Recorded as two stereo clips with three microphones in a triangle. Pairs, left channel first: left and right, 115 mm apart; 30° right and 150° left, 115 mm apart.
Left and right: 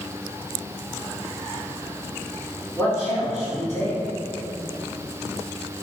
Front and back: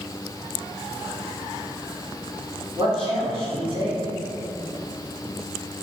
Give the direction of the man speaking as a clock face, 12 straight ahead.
7 o'clock.